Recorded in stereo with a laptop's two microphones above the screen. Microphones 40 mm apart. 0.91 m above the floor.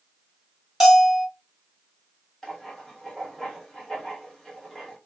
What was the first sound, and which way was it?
A bell, 5° right (ahead or behind).